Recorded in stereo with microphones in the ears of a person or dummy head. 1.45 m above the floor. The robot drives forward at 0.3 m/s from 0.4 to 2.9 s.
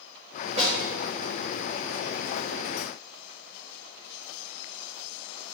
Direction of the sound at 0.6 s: 35° right (ahead or behind).